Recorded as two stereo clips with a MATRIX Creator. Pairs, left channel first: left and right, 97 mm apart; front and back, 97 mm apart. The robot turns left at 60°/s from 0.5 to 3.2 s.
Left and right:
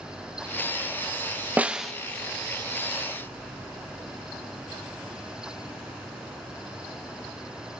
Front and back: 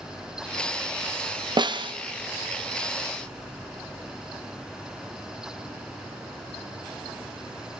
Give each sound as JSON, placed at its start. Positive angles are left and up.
{"t": 1.6, "sound": "a snare drum", "azimuth_deg": -160, "distance_m": 0.5}